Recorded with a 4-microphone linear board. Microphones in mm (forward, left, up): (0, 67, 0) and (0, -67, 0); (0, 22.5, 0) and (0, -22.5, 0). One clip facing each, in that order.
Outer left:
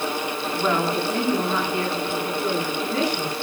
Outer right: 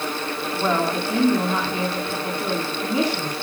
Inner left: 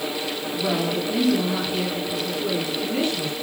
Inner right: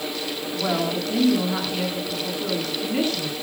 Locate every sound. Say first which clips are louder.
0.5 s a woman speaking: outer right 1 dB, even; 20° right (ahead or behind), 9 m